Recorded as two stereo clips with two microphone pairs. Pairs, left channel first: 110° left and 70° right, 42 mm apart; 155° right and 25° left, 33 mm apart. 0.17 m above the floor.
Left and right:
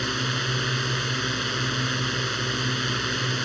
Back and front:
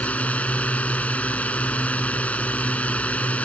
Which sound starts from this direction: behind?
A drone, at 0.0 s.